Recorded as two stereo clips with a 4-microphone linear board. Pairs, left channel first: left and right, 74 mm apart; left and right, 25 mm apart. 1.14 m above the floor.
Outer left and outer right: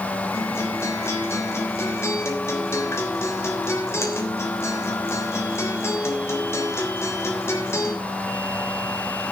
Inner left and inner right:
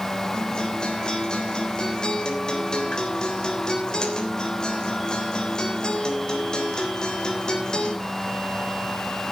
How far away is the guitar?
About 3.5 m.